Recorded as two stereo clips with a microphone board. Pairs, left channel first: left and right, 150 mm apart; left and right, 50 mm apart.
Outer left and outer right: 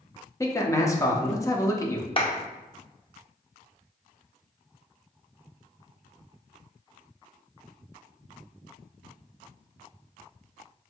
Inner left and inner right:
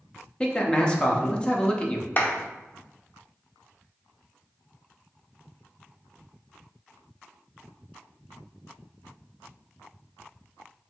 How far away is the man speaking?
About 0.7 m.